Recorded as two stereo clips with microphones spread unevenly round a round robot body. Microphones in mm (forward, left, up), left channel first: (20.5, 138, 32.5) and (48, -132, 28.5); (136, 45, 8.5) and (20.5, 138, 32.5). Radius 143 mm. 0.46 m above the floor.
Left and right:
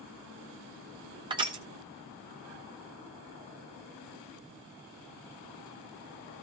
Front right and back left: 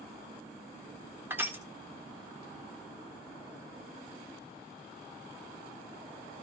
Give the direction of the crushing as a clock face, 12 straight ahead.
5 o'clock.